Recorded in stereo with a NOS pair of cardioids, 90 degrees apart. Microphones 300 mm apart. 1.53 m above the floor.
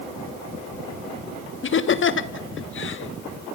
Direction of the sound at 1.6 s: 40° left.